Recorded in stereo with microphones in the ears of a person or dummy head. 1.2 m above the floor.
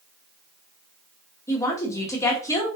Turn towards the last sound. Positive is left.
turn(degrees=15)  # may be behind; listen again after turning